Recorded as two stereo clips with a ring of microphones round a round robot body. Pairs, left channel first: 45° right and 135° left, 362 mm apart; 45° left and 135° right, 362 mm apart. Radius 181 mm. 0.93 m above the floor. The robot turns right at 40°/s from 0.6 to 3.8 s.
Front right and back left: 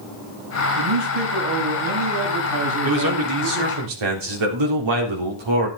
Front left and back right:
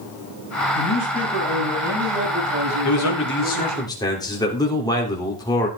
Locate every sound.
0.8 s a man speaking: 95° left, 7 m; by 3.8 s 140° right, 7 m
2.8 s a man speaking: 85° left, 3.5 m; by 5.7 s 125° left, 3.5 m